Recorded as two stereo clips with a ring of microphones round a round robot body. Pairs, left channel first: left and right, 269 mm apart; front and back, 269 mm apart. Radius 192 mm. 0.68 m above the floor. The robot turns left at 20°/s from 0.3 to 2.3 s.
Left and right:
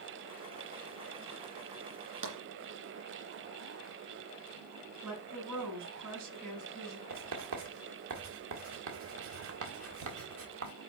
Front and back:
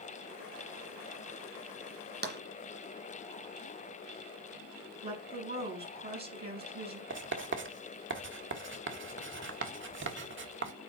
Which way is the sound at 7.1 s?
135° right.